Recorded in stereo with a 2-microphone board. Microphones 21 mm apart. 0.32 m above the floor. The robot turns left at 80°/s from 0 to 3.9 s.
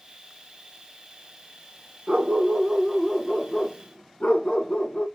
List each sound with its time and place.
2.1 s a dog barking: 120° right, 0.9 m; by 5.1 s 95° left, 0.9 m